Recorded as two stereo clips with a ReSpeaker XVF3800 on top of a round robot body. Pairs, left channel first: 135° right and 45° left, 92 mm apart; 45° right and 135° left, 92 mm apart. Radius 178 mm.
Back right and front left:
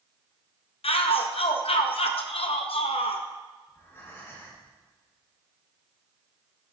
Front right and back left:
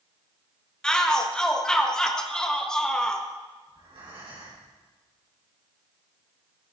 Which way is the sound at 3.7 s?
160° left.